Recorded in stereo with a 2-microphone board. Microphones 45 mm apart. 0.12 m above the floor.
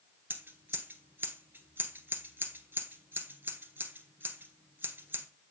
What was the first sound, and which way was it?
Scissors, 50° right (ahead or behind).